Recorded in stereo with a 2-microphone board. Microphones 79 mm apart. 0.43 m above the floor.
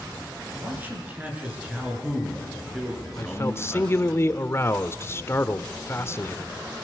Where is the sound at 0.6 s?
20° right (ahead or behind), 7.5 m; by 4.1 s 10° left (ahead or behind), 6.5 m.